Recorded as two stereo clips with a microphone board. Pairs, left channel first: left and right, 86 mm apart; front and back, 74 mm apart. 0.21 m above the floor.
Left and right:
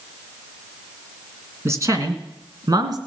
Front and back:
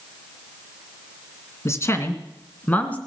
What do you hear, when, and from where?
1.6 s a man speaking: 40° right, 2 m; by 3.0 s 70° right, 2.5 m